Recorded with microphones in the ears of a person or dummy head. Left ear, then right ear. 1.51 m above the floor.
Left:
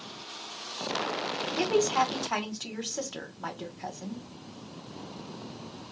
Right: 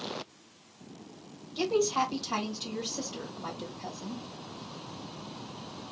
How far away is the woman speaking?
About 1.1 m.